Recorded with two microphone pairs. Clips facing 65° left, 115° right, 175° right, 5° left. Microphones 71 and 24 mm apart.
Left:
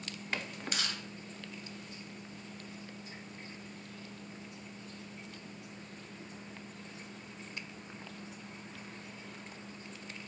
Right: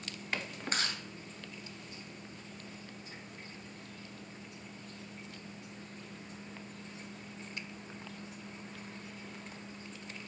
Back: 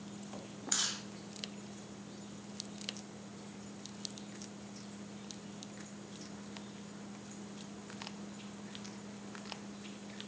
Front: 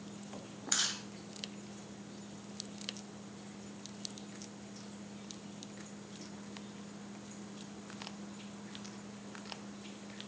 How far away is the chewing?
About 2.0 m.